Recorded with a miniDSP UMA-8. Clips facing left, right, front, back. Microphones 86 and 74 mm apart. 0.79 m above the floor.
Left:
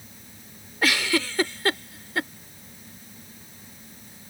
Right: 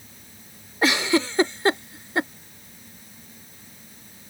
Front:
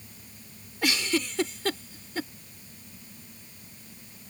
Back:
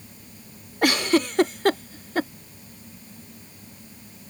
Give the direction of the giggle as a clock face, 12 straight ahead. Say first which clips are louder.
Right 4 dB, back 7 dB; 5 o'clock.